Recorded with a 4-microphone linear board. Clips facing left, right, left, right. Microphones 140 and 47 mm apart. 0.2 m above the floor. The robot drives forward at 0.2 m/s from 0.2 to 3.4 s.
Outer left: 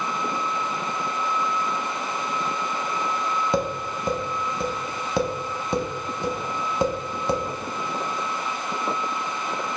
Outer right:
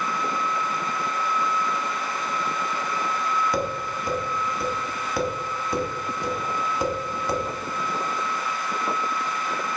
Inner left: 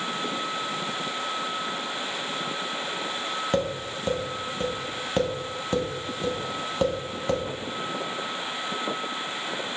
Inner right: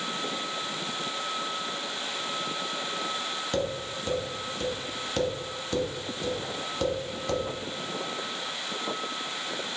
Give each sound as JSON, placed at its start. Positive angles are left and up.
{"t": 3.5, "sound": "tapping", "side_deg": 25, "distance_m": 0.8}